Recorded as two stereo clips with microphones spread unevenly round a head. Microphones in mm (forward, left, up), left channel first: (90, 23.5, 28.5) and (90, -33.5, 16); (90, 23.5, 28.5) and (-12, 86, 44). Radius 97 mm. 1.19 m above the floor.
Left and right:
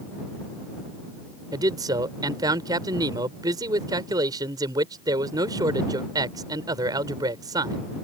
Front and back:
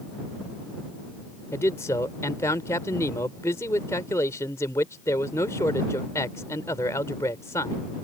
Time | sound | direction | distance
1.5 | a man speaking | 110° right | ?